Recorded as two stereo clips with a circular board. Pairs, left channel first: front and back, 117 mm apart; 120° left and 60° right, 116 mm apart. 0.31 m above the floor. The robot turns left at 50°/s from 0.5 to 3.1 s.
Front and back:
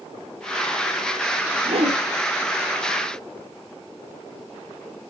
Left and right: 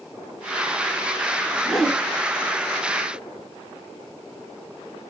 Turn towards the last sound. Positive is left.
turn(degrees=145)